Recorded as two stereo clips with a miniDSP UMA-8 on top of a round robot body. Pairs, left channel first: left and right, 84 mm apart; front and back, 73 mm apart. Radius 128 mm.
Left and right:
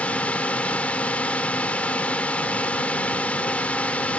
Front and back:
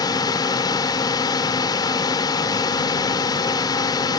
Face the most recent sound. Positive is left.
turn(degrees=15)